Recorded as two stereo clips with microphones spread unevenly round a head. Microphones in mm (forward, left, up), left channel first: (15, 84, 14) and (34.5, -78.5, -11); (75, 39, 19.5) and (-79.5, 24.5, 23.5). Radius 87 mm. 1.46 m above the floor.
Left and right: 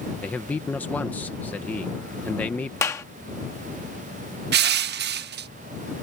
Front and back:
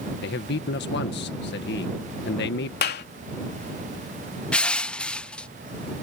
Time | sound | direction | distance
0.2 | a man speaking | 15° left | ?
2.8 | a clap | 25° left | ?
4.5 | crushing | 80° right | ?